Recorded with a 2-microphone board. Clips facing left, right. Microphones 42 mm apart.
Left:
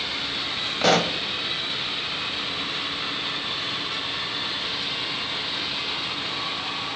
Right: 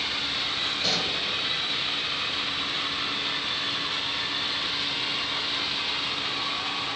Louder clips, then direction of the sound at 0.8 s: Left 11 dB; 60° left (ahead or behind).